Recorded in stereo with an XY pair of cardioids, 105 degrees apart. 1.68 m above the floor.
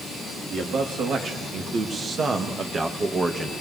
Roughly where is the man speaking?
Right.